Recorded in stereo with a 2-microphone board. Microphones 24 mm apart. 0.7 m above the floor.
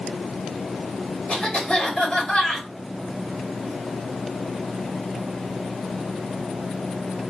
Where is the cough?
40° left (ahead or behind), 1.9 m.